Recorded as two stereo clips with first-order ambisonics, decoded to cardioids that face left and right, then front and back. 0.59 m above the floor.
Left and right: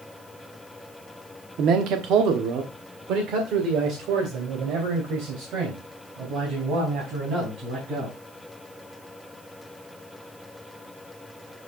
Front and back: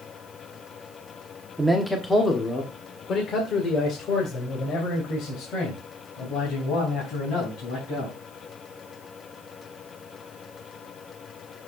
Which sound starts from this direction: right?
A man speaking, at 1.6 s.